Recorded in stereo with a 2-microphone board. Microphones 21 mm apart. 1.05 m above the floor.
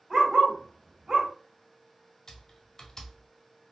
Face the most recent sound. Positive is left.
turn(degrees=30)  # may be behind; listen again after turning